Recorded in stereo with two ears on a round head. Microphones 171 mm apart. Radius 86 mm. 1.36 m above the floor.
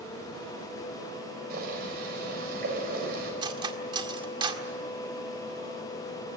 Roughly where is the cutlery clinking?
Right.